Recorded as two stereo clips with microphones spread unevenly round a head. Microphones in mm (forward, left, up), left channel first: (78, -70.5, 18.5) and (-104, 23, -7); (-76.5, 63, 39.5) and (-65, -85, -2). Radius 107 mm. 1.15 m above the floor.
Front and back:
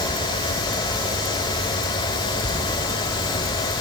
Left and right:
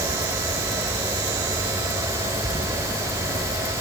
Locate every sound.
Only background noise.